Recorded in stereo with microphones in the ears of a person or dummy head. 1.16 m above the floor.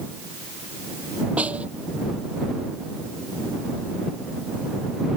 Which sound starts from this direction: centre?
A snare drum, at 1.4 s.